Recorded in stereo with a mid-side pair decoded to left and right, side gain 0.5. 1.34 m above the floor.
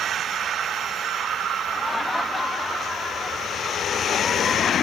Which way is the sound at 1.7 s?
15° left.